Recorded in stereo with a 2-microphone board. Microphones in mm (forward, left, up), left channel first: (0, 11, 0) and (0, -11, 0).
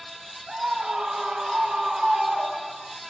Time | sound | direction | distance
0.5 | a scream | 40° right (ahead or behind) | 1.9 m